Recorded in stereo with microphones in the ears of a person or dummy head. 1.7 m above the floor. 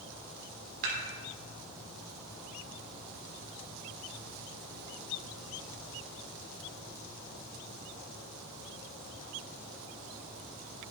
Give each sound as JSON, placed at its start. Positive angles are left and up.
{"t": 0.8, "sound": "dishes clattering", "side_deg": -50, "distance_m": 3.5}